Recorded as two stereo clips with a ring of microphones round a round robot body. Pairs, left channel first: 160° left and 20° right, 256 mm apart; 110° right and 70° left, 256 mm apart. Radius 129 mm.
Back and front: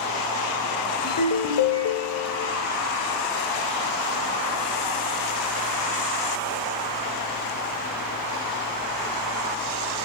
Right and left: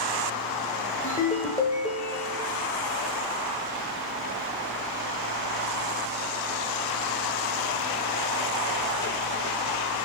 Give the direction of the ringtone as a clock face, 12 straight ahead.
6 o'clock.